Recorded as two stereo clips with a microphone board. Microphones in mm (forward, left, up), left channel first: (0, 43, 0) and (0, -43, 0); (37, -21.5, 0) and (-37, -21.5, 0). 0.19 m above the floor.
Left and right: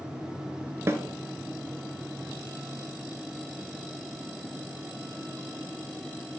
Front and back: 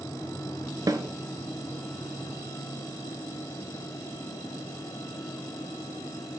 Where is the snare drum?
150° right, 0.8 m.